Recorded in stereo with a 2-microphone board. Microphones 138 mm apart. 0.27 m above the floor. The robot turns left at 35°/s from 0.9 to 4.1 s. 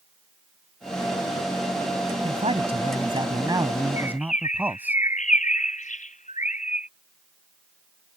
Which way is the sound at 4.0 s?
60° left (ahead or behind).